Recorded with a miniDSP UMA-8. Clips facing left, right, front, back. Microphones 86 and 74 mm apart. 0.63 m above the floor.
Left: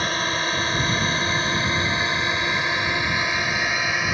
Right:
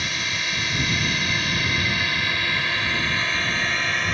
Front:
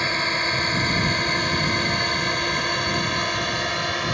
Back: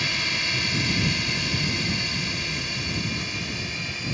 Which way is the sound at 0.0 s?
45° left.